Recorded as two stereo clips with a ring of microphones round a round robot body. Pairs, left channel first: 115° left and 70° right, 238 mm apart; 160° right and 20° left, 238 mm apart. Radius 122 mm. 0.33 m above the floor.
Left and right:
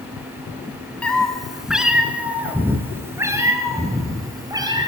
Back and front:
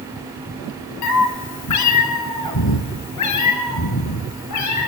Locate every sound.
1.0 s a cat meowing: 160° right, 1.8 m; by 4.9 s 140° right, 4 m